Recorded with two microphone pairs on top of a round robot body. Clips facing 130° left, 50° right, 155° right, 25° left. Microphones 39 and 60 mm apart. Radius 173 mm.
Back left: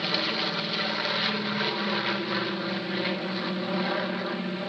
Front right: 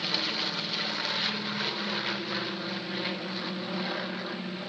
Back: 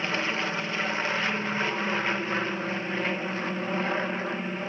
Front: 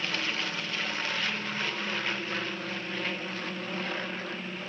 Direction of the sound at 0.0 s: Straight behind.